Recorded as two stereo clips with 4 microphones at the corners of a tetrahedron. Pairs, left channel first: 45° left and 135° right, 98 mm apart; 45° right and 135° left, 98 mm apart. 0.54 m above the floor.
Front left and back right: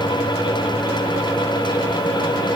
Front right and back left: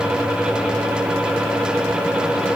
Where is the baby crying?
I don't hear a baby crying.